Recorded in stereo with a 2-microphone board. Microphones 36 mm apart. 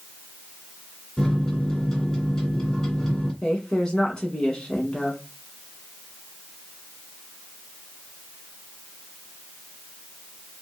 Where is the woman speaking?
20° left (ahead or behind), 1.1 m.